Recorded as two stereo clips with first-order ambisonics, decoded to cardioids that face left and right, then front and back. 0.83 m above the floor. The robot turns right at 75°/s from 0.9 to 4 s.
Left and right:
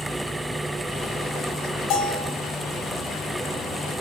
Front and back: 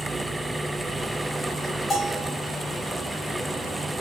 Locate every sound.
1.9 s a bell: 80° left, 1.8 m; by 2.3 s 115° left, 1.8 m